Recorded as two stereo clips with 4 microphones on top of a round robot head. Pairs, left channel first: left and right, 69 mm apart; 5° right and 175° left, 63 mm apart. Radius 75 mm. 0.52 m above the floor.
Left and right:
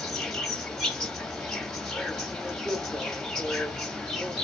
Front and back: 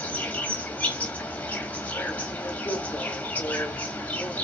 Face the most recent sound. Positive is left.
turn(degrees=10)